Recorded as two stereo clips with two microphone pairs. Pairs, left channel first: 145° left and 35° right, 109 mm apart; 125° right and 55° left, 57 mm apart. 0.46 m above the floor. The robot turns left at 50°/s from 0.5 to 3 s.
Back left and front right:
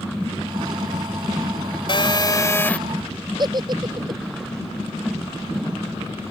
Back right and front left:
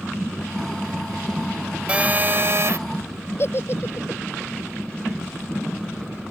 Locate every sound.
1.9 s a phone buzzing: 115° left; by 2.8 s 75° left
3.4 s a giggle: 85° right